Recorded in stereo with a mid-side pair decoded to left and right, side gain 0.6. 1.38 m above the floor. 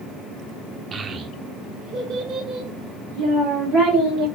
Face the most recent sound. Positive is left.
turn(degrees=-65)